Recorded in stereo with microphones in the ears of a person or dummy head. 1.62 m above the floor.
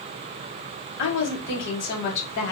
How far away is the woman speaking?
About 2 m.